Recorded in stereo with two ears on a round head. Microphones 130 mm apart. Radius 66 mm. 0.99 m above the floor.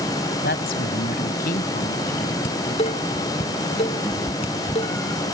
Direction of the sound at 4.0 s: 10° left (ahead or behind).